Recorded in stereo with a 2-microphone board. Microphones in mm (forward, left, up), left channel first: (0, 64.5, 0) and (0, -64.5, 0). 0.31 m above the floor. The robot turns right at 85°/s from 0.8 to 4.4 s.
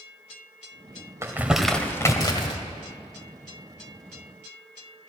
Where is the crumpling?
20° right (ahead or behind), 1.4 m; by 2.6 s 40° left (ahead or behind), 1.4 m.